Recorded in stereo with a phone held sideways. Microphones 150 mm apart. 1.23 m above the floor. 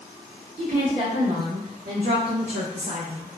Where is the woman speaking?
45° right (ahead or behind), 1.8 m; by 3.3 s 35° right (ahead or behind), 0.8 m.